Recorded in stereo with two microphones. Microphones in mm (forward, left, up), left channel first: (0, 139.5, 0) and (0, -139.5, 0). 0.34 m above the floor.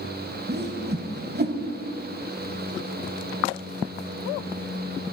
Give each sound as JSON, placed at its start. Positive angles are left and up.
{"t": 0.5, "sound": "a whoosh", "side_deg": -35, "distance_m": 0.8}